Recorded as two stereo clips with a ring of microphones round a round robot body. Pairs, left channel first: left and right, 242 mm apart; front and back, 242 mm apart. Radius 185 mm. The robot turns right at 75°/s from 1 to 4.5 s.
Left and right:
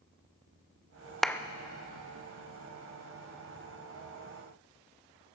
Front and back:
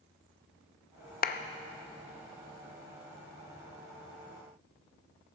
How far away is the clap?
About 0.5 m.